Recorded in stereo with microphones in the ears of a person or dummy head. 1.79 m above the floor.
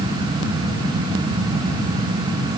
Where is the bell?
No bell in this recording.